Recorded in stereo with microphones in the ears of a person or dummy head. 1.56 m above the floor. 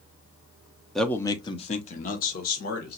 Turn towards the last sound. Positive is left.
turn(degrees=65)  # may be behind; listen again after turning